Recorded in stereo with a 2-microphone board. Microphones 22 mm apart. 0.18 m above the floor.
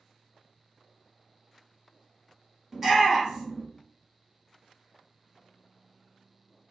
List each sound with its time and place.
2.7 s a shout: 20° right (ahead or behind), 1.5 m